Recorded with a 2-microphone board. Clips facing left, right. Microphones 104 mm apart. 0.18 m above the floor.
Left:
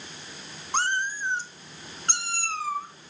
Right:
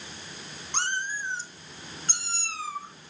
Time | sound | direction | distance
0.7 | a cat meowing | 40° left (ahead or behind) | 1.0 m